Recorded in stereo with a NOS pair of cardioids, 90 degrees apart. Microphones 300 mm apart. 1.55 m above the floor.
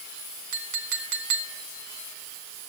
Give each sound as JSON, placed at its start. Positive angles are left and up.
{"t": 0.5, "sound": "a clink", "azimuth_deg": -70, "distance_m": 2.5}